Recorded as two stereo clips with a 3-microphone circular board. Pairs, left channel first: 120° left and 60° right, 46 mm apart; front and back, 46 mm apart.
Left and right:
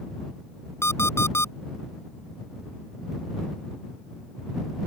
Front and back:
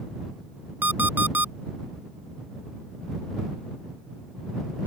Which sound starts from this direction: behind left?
An alarm clock, at 0.8 s.